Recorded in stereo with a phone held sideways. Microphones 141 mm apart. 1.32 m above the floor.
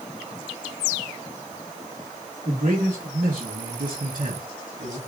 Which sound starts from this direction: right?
A man speaking, at 2.5 s.